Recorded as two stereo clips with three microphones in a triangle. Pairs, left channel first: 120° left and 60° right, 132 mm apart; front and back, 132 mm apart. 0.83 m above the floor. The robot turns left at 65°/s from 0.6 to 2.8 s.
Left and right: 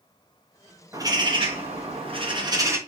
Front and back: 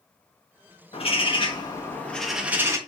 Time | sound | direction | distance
0.9 | a bird | straight ahead | 0.9 m